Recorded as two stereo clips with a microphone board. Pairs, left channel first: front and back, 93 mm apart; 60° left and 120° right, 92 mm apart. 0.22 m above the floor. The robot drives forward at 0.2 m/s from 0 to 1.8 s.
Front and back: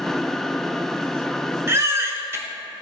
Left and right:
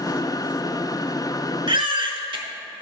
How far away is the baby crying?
About 0.8 m.